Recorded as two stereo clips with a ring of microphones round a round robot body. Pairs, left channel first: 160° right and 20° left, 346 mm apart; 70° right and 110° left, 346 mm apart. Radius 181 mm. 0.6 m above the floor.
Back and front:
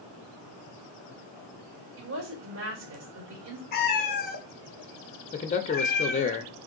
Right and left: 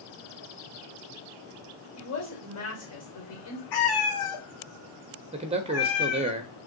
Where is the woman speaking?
25° right, 2 m.